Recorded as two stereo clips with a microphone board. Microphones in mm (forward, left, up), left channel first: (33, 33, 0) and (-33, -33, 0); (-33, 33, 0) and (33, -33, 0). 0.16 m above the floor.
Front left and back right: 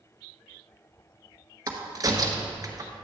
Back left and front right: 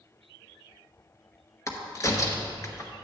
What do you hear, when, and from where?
1.7 s a crack: 175° right, 1.1 m